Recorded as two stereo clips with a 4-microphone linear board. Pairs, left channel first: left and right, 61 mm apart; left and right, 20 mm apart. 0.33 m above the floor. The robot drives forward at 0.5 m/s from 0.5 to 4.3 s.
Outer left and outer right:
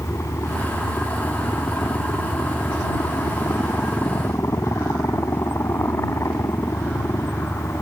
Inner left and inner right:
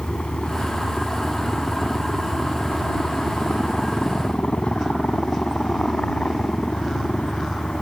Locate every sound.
0.0 s a helicopter: 50° left (ahead or behind); by 7.8 s 55° left (ahead or behind)